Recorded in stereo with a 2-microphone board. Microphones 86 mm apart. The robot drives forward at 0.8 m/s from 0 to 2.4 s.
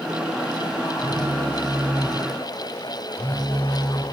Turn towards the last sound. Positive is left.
turn(degrees=75)  # may be behind; listen again after turning